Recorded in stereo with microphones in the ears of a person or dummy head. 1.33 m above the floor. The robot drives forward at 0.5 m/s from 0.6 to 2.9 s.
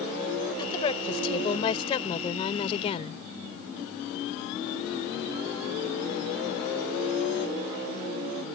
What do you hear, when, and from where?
0.6 s a woman speaking: 30° left (ahead or behind); by 3.2 s 40° left (ahead or behind)